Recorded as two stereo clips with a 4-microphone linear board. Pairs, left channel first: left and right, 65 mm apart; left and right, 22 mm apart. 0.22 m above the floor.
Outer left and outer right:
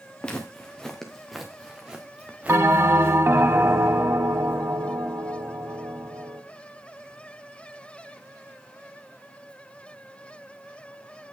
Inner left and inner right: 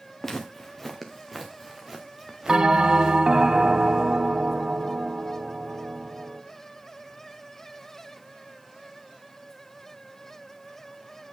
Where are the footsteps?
15° left (ahead or behind), 2.5 m; by 3.2 s 35° right (ahead or behind), 2.0 m.